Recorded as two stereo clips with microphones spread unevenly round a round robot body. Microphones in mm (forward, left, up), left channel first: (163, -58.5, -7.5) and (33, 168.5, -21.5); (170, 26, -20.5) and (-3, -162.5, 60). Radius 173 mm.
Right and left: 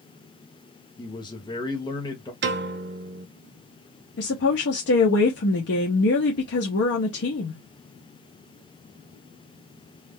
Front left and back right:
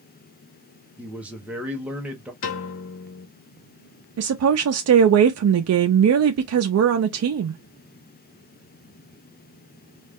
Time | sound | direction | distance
1.0 | a man speaking | 5° right | 0.8 m
2.4 | a piano | 95° left | 0.5 m
4.2 | a woman speaking | 100° right | 0.5 m